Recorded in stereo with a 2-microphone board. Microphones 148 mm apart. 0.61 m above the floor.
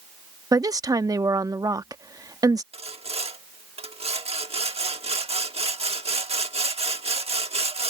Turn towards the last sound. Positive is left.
turn(degrees=-40)  # may be behind; listen again after turning